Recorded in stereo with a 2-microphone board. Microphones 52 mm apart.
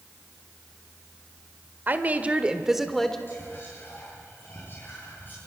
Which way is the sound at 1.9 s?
40° right (ahead or behind).